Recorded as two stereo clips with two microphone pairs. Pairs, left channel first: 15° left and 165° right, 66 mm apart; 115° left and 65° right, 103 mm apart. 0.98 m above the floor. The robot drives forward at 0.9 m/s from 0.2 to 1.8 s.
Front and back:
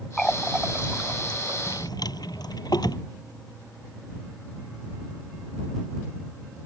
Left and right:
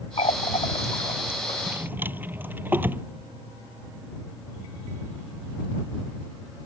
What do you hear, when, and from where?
0.2 s a running tap: 100° left; by 1.6 s 150° left
1.7 s a drawer: 5° left